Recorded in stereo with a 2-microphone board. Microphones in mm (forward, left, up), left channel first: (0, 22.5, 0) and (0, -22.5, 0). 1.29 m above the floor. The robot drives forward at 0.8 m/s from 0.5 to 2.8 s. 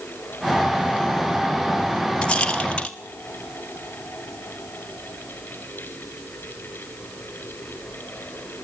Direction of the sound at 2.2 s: 20° left (ahead or behind).